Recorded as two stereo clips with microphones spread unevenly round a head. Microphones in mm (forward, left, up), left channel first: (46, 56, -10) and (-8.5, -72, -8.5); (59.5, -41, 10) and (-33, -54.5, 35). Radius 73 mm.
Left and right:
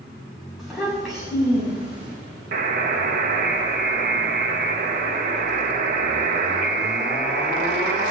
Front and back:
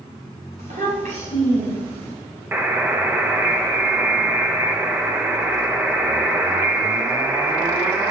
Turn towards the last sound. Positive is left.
turn(degrees=-95)